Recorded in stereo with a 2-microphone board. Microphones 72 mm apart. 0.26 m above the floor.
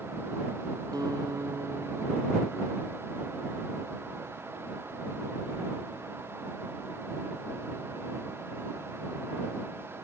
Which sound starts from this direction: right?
A guitar, at 0.9 s.